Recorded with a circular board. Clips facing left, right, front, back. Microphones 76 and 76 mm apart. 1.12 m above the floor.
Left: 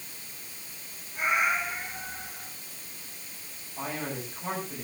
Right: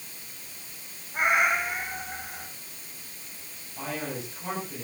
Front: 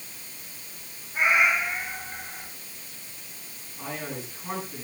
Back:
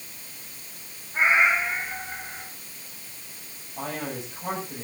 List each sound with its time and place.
1.1 s a cat meowing: 120° right, 3.5 m
3.8 s a man speaking: 170° left, 8 m